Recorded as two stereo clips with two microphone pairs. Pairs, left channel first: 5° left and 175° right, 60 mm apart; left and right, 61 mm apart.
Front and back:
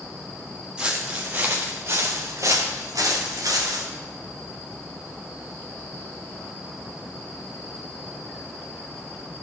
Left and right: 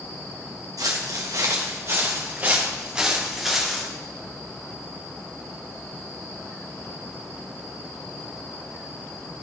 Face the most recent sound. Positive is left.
turn(degrees=180)